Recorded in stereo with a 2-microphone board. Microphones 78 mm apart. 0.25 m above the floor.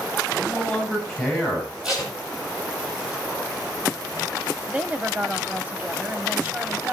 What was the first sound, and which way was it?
A man speaking, 5° left (ahead or behind).